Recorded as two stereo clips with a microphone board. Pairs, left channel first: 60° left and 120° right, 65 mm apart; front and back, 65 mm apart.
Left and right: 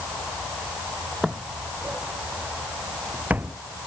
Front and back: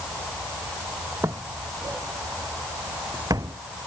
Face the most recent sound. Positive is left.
turn(degrees=180)